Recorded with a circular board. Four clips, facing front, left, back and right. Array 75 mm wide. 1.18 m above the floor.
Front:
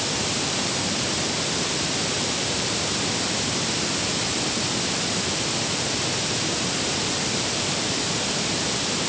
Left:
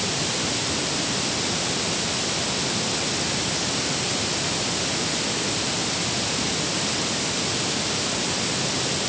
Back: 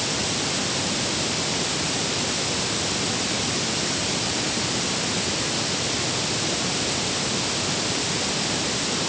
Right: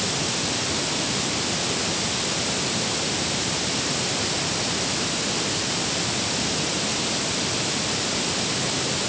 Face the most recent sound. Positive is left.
No sound to turn to.